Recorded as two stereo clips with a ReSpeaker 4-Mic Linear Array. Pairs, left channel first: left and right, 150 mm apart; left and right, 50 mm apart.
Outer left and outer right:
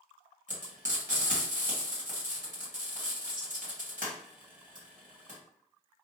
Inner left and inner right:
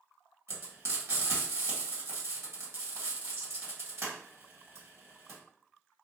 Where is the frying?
60° right (ahead or behind), 1.6 m.